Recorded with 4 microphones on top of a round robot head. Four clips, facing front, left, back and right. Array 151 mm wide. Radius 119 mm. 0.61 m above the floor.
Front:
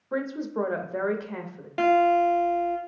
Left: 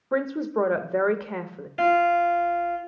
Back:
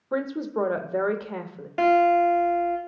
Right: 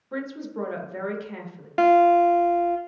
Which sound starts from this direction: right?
A guitar, at 1.8 s.